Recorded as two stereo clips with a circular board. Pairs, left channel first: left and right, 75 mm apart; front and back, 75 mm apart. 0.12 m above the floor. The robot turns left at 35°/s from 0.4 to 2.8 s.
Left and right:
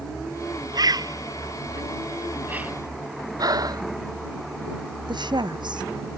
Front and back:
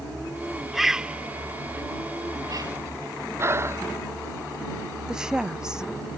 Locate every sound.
0.7 s a bird: 90° right; by 2.7 s 160° right
3.4 s breathing: 125° right
5.1 s a woman speaking: 100° right